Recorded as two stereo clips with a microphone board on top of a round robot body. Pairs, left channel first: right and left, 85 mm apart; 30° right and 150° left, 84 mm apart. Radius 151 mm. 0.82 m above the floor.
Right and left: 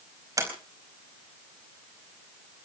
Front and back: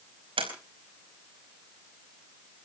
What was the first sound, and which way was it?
A sliding door, 145° left.